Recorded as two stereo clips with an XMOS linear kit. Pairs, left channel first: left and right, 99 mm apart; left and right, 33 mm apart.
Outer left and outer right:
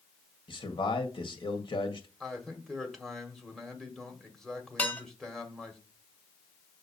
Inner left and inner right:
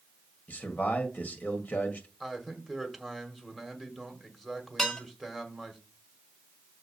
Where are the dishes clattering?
15° left (ahead or behind), 1.5 m.